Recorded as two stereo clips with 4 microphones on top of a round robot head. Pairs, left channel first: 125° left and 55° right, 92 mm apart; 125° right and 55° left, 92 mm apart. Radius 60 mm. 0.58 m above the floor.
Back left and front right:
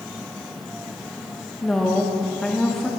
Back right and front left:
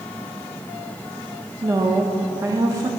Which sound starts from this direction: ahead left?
A woman speaking, at 1.6 s.